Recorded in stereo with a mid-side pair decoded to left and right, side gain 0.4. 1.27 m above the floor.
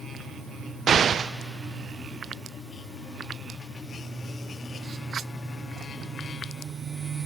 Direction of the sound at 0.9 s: 55° right.